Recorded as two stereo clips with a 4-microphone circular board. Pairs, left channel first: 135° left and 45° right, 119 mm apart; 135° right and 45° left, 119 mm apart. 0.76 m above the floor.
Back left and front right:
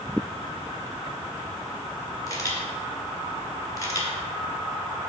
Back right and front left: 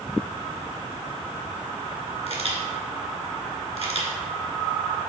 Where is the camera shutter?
75° left, 2.5 m.